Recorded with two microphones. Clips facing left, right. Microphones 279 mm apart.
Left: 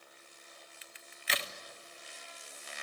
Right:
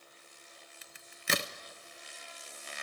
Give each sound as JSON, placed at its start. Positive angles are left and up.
{"t": 0.8, "sound": "a crack", "side_deg": -50, "distance_m": 0.8}